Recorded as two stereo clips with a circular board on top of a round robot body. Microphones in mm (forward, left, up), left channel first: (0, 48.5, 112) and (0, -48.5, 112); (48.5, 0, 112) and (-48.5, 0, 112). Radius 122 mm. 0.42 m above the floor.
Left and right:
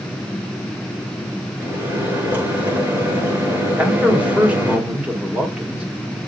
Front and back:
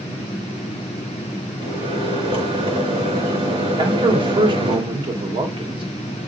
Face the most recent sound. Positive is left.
turn(degrees=-165)